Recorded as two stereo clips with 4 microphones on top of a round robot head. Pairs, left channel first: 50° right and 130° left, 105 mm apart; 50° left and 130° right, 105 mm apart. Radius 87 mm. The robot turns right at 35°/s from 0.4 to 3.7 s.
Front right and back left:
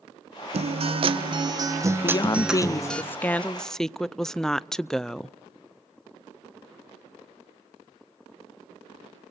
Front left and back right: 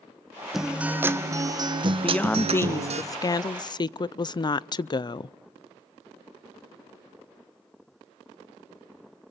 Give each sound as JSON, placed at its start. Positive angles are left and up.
{"t": 0.5, "sound": "a guitar", "azimuth_deg": 145, "distance_m": 1.4}
{"t": 2.0, "sound": "a woman speaking", "azimuth_deg": -25, "distance_m": 0.5}